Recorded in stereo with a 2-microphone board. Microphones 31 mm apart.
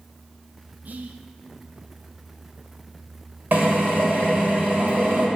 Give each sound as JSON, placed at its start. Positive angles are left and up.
{"t": 0.8, "sound": "whispering", "side_deg": -60, "distance_m": 0.7}
{"t": 3.5, "sound": "a drill", "side_deg": -70, "distance_m": 1.6}